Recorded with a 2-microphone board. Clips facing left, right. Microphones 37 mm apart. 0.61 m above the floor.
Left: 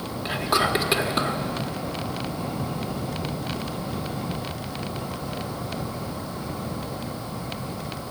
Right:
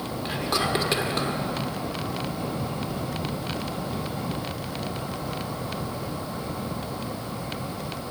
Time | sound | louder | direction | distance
0.2 | whispering | left 4 dB | 10° left (ahead or behind) | 1.2 m